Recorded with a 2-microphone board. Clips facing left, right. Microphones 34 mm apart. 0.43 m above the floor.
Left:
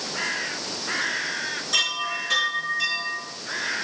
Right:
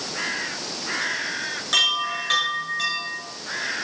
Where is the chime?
60° right (ahead or behind), 6.5 m.